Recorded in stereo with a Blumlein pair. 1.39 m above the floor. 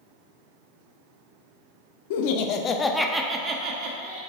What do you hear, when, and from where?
2.1 s laughter: 55° left, 0.8 m; by 4.2 s 50° right, 1.1 m